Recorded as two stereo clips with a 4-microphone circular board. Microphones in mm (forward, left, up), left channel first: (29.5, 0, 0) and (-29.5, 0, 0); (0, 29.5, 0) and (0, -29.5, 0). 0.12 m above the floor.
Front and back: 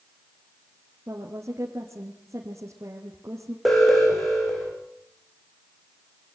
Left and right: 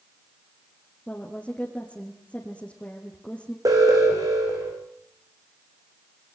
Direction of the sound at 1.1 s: 155° left.